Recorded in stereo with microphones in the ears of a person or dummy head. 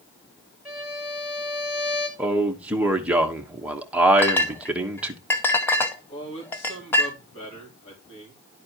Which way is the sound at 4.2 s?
15° left (ahead or behind).